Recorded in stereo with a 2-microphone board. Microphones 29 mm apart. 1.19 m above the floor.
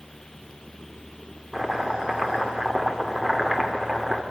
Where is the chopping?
15° right (ahead or behind), 2 m.